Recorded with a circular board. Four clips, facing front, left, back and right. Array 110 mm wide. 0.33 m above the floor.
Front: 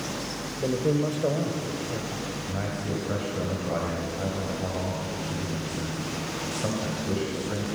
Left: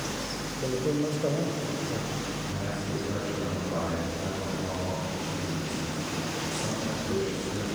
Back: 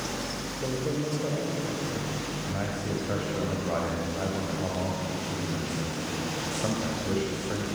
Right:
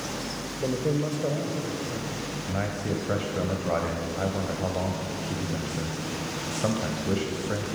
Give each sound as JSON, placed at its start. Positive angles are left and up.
{"t": 0.6, "sound": "a man speaking", "azimuth_deg": -45, "distance_m": 1.2}
{"t": 2.5, "sound": "a man speaking", "azimuth_deg": -95, "distance_m": 1.9}